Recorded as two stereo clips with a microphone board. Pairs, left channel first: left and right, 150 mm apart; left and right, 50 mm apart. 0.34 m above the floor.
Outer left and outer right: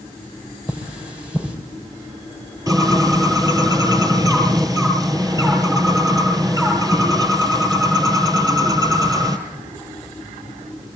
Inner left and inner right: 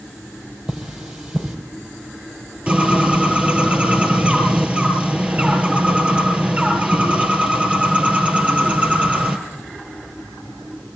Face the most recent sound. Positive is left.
turn(degrees=-20)  # may be behind; listen again after turning